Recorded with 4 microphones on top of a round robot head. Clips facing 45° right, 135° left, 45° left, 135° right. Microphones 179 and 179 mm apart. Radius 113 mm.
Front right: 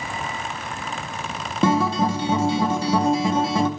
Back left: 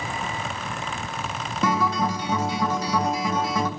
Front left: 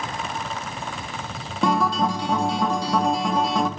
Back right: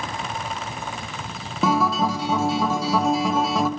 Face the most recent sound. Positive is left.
turn(degrees=-50)